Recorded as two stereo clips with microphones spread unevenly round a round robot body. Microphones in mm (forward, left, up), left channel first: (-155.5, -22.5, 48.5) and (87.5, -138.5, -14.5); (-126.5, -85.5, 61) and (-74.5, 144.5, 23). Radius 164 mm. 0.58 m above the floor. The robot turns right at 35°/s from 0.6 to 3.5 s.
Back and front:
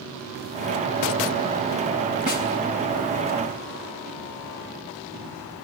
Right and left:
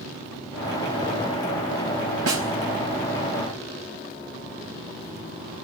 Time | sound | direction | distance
2.3 | a snare drum | 85° left | 4.5 m